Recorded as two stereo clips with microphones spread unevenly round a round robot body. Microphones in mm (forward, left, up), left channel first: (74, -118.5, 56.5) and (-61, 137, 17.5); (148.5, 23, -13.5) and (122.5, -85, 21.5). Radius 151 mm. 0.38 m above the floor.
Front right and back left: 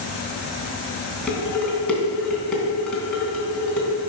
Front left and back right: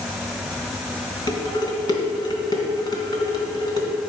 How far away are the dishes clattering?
About 3 m.